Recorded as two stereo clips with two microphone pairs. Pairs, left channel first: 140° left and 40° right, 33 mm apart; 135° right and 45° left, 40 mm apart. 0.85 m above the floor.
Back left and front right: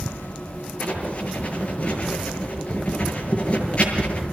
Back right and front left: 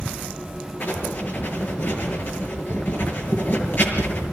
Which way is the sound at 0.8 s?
170° right.